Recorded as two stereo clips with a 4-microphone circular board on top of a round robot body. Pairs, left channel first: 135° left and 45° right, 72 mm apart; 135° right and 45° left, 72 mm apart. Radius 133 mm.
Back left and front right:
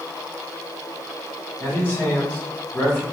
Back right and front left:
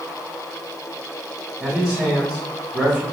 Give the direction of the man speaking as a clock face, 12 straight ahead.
9 o'clock.